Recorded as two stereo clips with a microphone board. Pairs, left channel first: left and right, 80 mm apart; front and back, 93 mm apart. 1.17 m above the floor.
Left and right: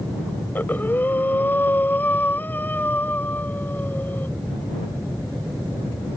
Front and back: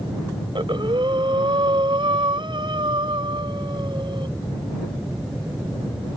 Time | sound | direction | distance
0.6 | breathing | 155° left | ?